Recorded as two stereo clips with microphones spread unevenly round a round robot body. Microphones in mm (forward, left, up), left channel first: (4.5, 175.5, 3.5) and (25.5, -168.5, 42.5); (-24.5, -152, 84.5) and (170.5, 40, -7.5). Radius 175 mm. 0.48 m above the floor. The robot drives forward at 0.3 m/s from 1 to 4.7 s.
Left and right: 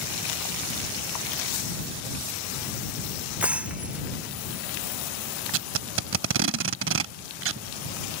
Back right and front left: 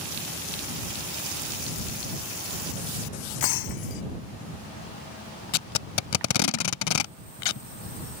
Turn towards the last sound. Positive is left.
turn(degrees=-140)